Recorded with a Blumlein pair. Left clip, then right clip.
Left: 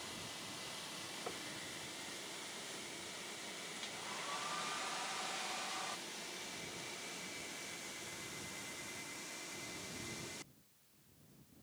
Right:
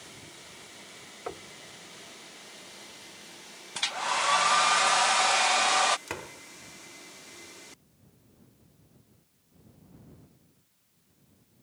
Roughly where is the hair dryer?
Ahead right.